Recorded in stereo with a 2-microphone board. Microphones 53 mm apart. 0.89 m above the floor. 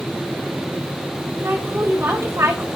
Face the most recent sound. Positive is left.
turn(degrees=-50)  # may be behind; listen again after turning